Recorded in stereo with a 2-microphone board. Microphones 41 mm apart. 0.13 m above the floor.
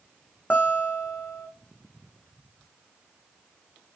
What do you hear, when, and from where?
0.5 s a guitar: 35° left (ahead or behind), 2.5 m